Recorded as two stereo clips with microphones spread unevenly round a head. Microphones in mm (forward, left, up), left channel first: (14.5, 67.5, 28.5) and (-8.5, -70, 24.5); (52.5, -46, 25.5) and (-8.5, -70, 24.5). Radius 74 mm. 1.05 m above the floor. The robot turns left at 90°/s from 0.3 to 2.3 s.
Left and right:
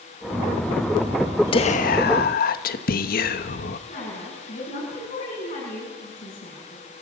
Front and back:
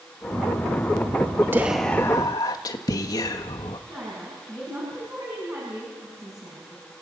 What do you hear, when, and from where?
1.5 s whispering: 135° left, 1.4 m; by 3.8 s 65° left, 1.4 m
3.9 s a woman speaking: 135° left, 8 m